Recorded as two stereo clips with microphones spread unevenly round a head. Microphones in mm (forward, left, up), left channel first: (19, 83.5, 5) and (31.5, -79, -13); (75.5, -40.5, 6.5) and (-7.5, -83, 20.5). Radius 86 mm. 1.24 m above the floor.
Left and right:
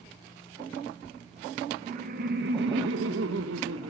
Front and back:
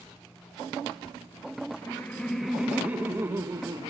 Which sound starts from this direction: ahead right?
Laughter, at 1.8 s.